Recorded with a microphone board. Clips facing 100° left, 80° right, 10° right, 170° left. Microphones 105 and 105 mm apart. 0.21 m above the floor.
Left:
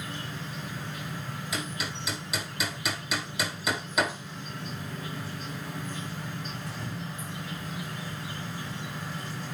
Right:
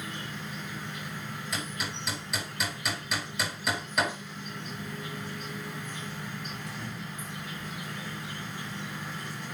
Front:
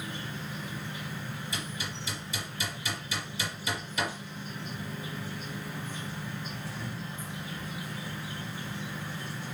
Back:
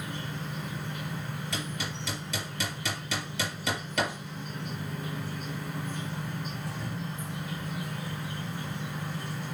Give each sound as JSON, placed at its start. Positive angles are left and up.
{"t": 0.0, "sound": "an insect", "azimuth_deg": 155, "distance_m": 5.0}
{"t": 1.5, "sound": "hammering", "azimuth_deg": -175, "distance_m": 5.5}